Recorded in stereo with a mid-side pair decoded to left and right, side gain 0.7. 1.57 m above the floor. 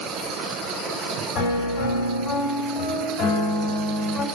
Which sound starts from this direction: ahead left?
A piano, at 1.4 s.